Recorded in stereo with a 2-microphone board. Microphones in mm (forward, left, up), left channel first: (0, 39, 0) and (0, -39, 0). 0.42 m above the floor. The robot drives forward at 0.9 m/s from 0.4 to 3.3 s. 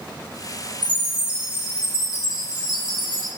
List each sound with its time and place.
0.8 s a chime: 75° right (ahead or behind), 7.5 m; by 3.3 s 60° right (ahead or behind), 8.5 m